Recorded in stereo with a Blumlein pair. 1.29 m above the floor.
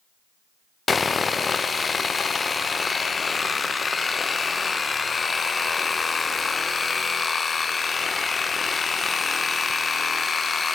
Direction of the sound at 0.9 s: 15° left.